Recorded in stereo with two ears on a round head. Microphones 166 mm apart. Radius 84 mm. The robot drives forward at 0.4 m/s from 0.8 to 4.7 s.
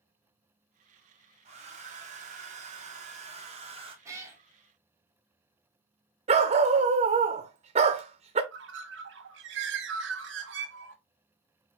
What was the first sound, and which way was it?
A hair dryer, 35° right (ahead or behind).